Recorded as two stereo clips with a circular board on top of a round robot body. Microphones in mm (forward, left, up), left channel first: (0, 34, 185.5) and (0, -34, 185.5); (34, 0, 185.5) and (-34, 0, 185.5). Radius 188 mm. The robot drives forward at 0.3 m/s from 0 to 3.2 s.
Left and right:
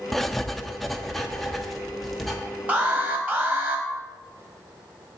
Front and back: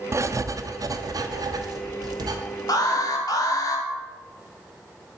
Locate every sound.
0.1 s writing: 175° left, 0.6 m; by 2.4 s straight behind, 1.1 m
2.7 s an alarm: 25° right, 1.3 m; by 3.9 s 30° right, 1.2 m